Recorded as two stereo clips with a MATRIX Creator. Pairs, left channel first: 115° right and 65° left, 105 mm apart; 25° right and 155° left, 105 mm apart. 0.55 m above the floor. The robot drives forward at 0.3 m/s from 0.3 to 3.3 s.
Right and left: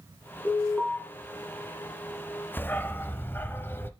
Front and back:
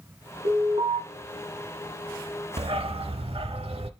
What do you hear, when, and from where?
0.5 s an alarm: 160° left, 3.5 m
2.6 s a dog barking: 175° left, 0.5 m; by 3.9 s straight behind, 0.8 m